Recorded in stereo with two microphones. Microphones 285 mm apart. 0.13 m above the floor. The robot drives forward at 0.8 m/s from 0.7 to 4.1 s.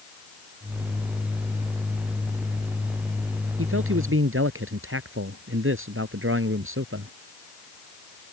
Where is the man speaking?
50° right (ahead or behind).